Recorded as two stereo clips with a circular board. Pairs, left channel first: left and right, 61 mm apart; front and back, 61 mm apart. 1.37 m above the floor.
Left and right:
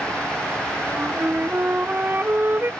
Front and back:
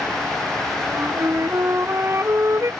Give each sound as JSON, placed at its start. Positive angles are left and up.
{"t": 0.8, "sound": "a flute", "azimuth_deg": -145}